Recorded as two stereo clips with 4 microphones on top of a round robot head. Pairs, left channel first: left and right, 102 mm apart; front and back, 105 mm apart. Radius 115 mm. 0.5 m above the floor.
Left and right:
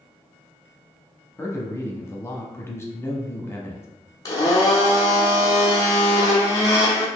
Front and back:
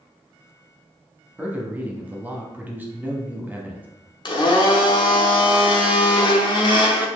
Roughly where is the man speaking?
Behind left.